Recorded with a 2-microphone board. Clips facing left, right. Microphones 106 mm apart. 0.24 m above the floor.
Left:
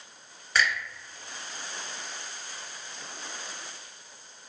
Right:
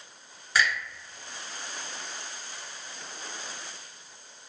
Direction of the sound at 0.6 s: 5° right (ahead or behind).